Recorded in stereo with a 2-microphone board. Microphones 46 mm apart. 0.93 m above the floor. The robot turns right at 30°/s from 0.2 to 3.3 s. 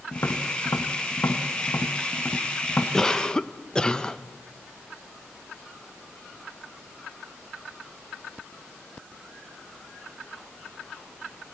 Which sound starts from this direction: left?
Tapping, at 0.1 s.